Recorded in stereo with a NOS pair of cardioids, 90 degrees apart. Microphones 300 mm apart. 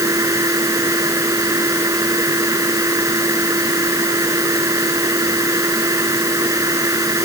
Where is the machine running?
10° right.